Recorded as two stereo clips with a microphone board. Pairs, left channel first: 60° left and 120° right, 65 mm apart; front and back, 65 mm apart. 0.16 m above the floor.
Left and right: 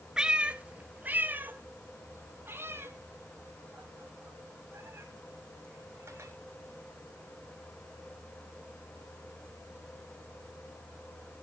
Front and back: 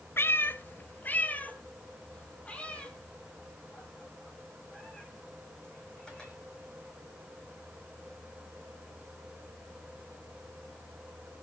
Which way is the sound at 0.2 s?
45° right.